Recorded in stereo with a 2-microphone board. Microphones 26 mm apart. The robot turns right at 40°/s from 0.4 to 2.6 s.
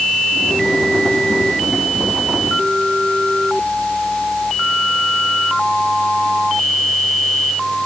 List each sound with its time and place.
Only background noise.